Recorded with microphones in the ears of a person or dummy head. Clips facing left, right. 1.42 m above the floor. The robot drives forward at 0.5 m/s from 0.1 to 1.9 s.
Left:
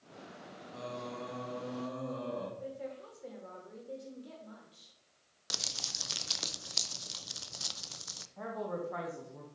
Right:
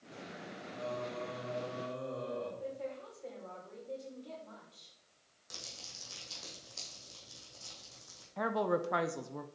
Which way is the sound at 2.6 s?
10° left (ahead or behind).